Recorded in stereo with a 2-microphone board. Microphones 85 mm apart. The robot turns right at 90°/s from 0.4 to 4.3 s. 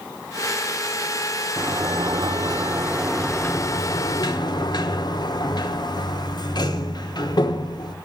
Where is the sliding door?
145° right, 0.8 m; by 8.0 s 105° left, 0.8 m.